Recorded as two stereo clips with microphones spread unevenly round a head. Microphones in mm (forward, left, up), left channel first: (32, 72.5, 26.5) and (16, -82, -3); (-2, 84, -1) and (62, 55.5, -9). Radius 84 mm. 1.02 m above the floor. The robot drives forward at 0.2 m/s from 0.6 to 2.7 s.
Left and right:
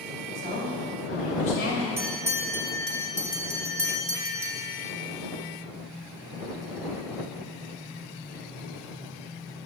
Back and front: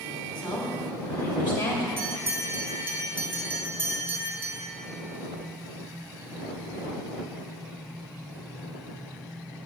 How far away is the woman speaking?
About 1.7 m.